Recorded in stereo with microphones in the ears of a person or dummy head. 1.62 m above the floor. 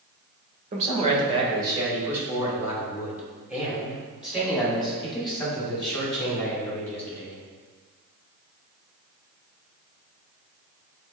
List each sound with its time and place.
0.7 s a man speaking: 35° right (ahead or behind), 1.7 m; by 7.4 s 5° left (ahead or behind), 6.5 m